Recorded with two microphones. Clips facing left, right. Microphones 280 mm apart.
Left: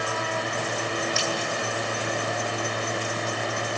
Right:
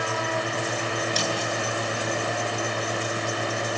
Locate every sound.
1.2 s a snare drum: 40° right (ahead or behind), 10 m